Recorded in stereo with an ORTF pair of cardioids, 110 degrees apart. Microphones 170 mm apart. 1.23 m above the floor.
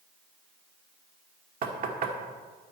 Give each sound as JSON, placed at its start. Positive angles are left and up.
{"t": 1.6, "sound": "knocking", "azimuth_deg": -60, "distance_m": 1.8}